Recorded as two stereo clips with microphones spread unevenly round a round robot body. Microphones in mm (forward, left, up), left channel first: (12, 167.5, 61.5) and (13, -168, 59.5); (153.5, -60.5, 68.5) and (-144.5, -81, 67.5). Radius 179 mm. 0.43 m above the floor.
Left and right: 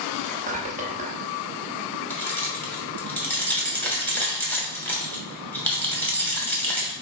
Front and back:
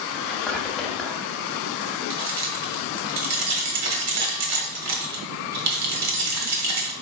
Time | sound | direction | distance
0.2 | whispering | 80° right | 1.1 m
2.1 | keys jangling | 175° left | 1.1 m